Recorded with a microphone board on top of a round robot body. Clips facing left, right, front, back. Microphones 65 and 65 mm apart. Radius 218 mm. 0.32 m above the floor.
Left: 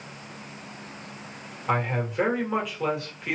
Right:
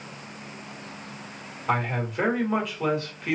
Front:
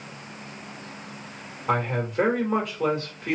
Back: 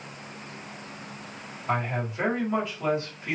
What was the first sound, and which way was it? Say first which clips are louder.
A man speaking: even, front 3 dB; 5° left.